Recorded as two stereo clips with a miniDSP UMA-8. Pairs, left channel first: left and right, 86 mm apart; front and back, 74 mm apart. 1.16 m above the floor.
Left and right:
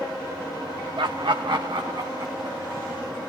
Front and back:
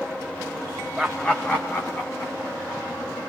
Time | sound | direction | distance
1.0 | laughter | 95° right | 0.7 m